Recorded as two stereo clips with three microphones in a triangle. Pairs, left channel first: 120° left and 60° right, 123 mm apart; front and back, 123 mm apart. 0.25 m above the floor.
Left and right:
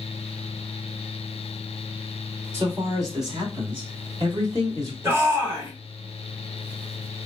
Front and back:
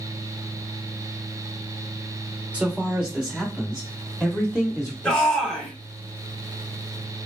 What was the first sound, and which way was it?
A man speaking, 110° right.